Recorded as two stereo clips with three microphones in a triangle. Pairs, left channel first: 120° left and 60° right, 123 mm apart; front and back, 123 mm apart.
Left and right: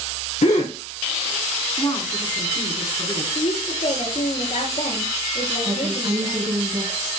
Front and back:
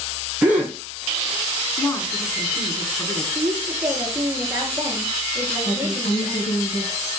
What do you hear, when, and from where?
0.4 s a gasp: 100° left, 3 m
1.8 s a woman speaking: 75° left, 3.5 m
3.4 s a woman speaking: 115° left, 6.5 m
5.7 s a woman speaking: 5° right, 3.5 m